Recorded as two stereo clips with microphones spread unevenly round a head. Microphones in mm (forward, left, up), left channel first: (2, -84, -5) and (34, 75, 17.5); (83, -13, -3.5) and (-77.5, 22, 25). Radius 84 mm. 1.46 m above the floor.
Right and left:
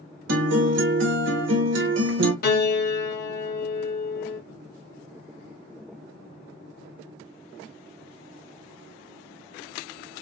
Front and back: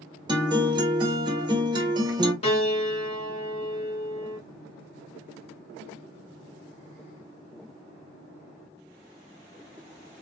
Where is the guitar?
100° left, 1.6 m.